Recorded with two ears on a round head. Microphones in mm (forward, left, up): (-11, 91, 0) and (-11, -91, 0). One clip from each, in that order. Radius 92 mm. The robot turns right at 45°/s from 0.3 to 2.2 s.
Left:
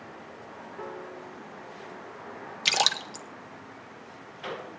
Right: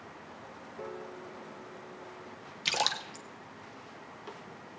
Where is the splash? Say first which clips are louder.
Left 6 dB; 20° left (ahead or behind), 0.6 m.